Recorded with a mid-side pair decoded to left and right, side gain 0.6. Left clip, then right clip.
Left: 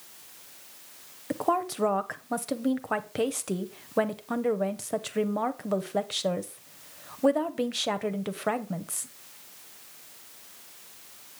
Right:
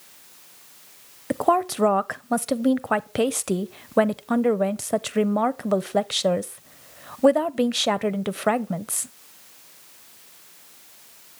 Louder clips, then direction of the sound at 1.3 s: Right 6 dB; 30° right.